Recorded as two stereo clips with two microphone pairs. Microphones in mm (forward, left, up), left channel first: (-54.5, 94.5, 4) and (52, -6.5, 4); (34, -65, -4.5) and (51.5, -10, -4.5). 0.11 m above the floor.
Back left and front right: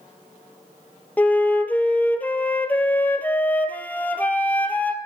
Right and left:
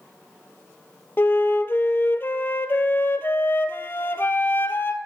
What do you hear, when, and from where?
1.2 s a flute: 150° right, 0.6 m